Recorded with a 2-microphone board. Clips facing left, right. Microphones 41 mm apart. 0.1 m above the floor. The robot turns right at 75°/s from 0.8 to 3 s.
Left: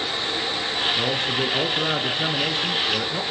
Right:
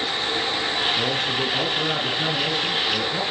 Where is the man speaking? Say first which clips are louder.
Even; centre (ahead or behind), 1.7 m; by 3.2 s 5° left (ahead or behind), 1.7 m.